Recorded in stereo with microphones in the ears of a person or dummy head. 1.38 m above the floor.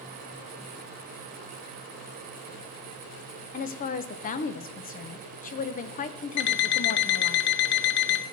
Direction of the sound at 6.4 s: 55° left (ahead or behind).